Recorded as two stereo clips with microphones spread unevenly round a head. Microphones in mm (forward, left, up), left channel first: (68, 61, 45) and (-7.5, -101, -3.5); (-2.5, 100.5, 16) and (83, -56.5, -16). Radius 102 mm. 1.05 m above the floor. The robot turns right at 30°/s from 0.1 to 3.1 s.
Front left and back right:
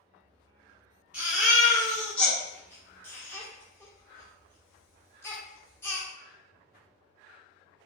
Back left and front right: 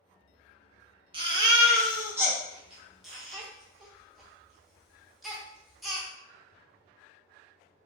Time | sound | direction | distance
1.1 | a baby crying | 10° right | 0.6 m